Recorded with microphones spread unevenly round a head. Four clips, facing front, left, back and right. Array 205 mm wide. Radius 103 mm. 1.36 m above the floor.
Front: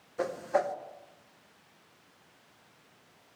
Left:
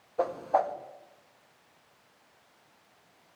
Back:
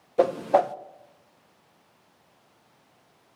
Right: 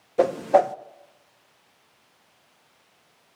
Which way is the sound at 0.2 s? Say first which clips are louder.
Right 8 dB, back 9 dB; 115° right.